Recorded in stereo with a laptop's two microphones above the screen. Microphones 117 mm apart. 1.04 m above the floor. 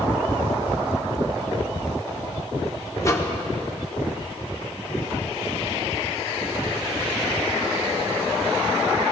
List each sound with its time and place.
3.0 s a microwave: 25° left (ahead or behind), 1.5 m